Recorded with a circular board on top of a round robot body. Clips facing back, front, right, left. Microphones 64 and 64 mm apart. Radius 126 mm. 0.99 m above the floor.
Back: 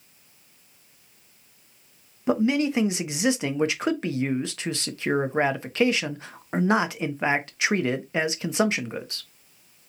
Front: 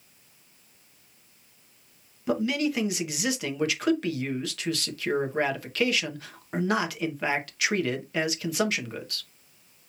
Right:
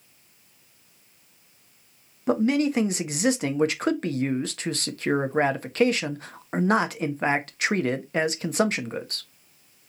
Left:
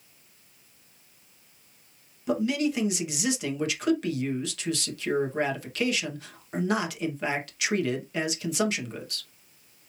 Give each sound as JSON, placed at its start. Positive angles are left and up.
{"t": 2.3, "sound": "a man speaking", "azimuth_deg": -125, "distance_m": 0.8}